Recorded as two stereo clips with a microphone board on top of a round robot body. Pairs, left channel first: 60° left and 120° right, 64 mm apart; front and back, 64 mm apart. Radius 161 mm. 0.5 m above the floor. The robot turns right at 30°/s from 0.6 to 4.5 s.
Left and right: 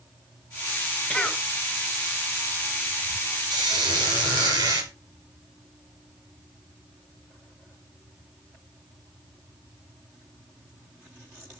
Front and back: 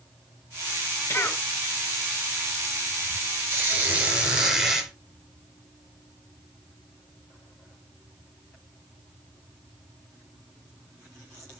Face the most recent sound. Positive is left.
turn(degrees=-100)